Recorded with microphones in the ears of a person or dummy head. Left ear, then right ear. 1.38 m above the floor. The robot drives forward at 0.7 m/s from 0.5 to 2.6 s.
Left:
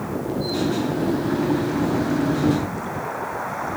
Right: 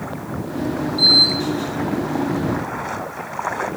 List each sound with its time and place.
Only background noise.